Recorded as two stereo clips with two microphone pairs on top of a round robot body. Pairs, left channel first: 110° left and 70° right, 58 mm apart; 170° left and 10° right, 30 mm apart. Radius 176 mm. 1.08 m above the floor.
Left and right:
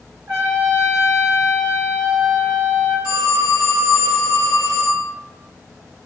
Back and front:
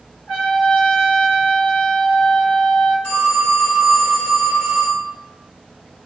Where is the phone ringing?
115° left, 1.1 m.